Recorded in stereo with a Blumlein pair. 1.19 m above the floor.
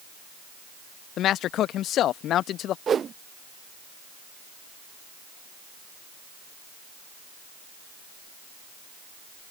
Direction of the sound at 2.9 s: 20° right.